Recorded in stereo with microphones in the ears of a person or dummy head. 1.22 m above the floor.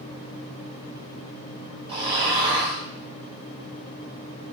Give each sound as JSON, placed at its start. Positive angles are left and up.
{"t": 1.9, "sound": "snoring", "side_deg": -25, "distance_m": 0.9}